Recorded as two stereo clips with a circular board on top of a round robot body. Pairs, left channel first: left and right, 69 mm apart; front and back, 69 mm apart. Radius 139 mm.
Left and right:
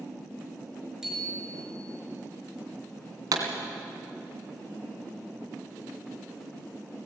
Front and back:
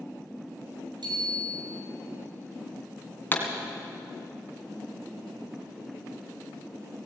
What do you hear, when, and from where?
1.0 s a bicycle bell: 170° right, 5 m
3.3 s a pop: 60° right, 2.5 m